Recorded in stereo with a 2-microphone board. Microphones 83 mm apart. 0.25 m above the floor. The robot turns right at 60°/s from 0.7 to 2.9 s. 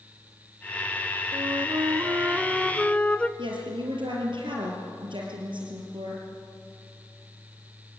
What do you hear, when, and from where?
1.3 s a flute: 80° right, 1.0 m; by 3.3 s 15° left, 1.0 m
3.4 s a woman speaking: 80° right, 4.5 m